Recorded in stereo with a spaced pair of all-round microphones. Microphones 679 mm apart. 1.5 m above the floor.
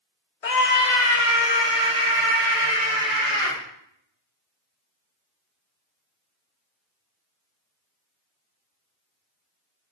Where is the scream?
60° left (ahead or behind), 0.9 m; by 3.6 s 30° left (ahead or behind), 4 m.